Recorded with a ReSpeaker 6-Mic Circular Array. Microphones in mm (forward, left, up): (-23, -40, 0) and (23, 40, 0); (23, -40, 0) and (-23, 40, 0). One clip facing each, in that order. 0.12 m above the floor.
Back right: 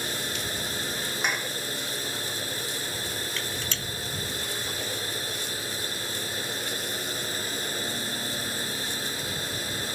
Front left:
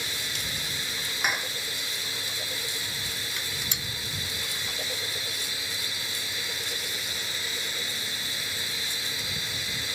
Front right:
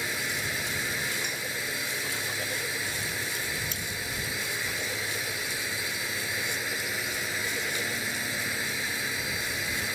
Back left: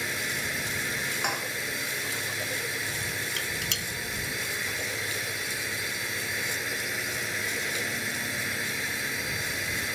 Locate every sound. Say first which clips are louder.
0.0 s a drone: back right 4 dB, even; 150° right
1.2 s dishes clattering: front left 1 dB, back left 4 dB; 145° left
3.4 s dishes clattering: back right 3 dB, even; 135° left